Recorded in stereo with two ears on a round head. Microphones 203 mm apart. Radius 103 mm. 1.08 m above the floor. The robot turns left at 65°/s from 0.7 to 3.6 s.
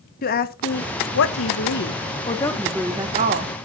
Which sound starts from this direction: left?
A woman speaking, at 0.2 s.